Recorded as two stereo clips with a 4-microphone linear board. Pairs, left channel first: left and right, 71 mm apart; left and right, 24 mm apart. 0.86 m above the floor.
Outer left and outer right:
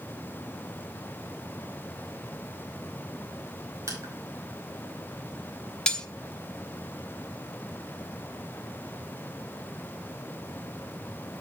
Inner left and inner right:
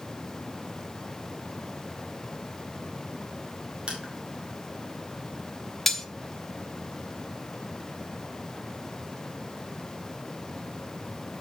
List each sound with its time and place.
3.9 s crushing: 45° right (ahead or behind), 2 m
5.9 s cutlery clinking: 10° left (ahead or behind), 0.7 m